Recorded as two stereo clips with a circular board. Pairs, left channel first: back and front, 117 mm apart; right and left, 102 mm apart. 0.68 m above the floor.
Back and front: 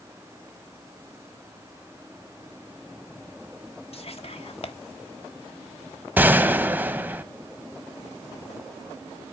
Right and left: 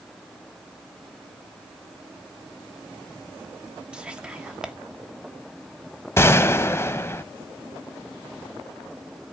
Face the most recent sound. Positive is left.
turn(degrees=-60)